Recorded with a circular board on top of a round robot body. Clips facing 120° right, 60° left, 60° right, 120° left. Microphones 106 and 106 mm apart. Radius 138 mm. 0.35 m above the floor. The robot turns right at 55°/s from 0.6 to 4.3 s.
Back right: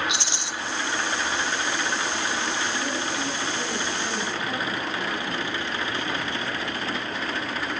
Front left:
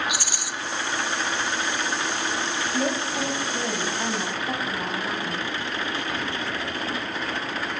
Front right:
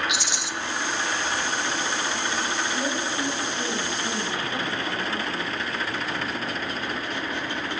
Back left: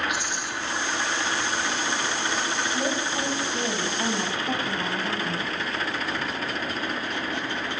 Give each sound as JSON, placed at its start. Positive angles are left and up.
{"t": 0.1, "sound": "a rattle", "azimuth_deg": -55, "distance_m": 1.2}
{"t": 2.7, "sound": "a woman speaking", "azimuth_deg": 40, "distance_m": 3.0}